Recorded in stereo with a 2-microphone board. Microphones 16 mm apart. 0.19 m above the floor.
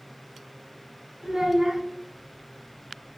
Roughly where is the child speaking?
Right.